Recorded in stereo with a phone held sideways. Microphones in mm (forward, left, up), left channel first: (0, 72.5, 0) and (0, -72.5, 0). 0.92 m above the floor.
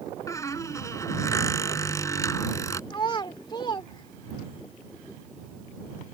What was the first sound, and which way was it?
A squeak, 20° left (ahead or behind).